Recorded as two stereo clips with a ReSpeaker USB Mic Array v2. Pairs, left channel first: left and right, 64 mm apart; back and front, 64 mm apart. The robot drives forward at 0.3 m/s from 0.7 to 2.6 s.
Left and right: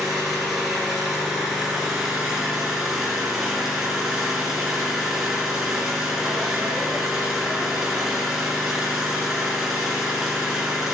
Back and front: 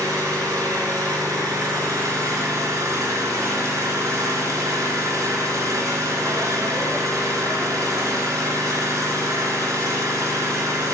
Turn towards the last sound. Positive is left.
turn(degrees=-10)